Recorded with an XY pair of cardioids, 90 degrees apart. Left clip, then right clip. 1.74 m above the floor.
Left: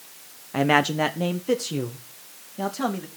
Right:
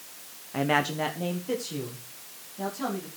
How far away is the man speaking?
About 0.9 m.